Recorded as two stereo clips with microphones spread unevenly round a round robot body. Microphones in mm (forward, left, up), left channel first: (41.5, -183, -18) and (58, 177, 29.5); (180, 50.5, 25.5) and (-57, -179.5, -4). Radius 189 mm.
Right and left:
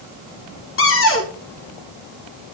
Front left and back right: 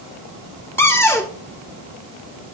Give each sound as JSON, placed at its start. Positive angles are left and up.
{"t": 0.8, "sound": "a cupboard door", "azimuth_deg": -40, "distance_m": 1.9}